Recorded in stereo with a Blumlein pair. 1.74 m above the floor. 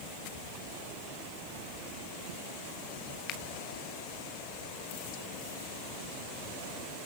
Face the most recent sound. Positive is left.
turn(degrees=35)